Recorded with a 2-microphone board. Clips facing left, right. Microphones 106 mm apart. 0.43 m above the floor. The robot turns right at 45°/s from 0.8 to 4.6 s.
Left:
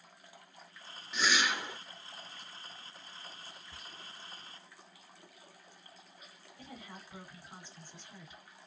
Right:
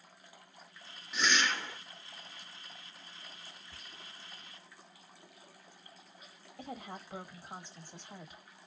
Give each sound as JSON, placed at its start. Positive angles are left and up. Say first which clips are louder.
{"t": 1.1, "sound": "a whoosh", "louder": "even", "side_deg": 0, "distance_m": 0.6}
{"t": 3.7, "sound": "whispering", "louder": "left 2 dB", "side_deg": 5, "distance_m": 0.9}
{"t": 6.6, "sound": "a woman speaking", "louder": "right 6 dB", "side_deg": -60, "distance_m": 2.0}